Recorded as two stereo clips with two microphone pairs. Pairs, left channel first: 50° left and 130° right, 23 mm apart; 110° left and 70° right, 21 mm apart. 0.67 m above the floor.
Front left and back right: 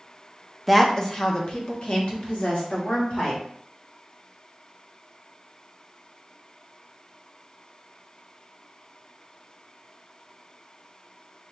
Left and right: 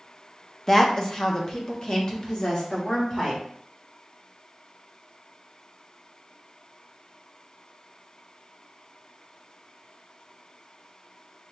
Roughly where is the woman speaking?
Left.